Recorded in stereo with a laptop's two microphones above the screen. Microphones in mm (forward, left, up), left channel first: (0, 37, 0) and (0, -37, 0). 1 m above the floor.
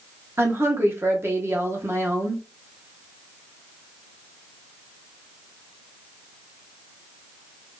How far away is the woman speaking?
About 0.8 m.